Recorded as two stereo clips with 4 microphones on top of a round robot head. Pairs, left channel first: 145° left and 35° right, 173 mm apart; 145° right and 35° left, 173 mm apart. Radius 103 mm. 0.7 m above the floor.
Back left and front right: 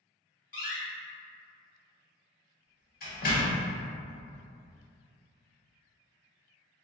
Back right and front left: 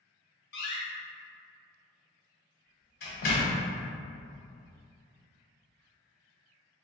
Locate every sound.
0.5 s a door slam: 175° right, 1.2 m